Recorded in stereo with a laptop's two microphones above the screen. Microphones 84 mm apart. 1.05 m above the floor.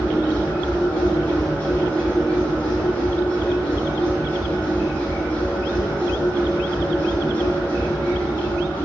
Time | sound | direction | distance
0.0 | a machine running | 15° left (ahead or behind) | 1.0 m